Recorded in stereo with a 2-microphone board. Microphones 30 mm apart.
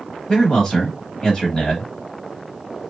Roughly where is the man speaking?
Left.